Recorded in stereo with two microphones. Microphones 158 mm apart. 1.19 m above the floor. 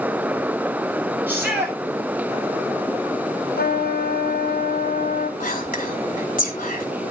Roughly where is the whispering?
Left.